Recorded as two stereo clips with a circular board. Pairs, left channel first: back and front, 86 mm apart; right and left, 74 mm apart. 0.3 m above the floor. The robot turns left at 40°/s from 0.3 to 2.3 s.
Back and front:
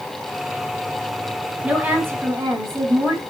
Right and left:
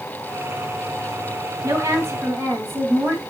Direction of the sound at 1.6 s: 70° left.